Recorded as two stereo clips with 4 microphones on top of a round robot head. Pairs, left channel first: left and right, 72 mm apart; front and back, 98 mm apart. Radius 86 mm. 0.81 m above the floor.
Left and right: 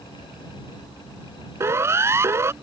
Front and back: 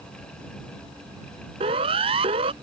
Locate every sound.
1.6 s a siren: 140° right